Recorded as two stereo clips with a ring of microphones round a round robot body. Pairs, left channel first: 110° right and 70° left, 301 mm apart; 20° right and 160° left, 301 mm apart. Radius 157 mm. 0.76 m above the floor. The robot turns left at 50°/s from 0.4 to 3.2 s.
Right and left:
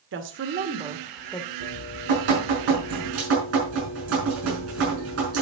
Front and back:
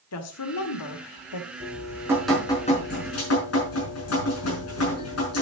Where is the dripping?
100° left, 5 m; by 5.4 s 20° left, 5 m.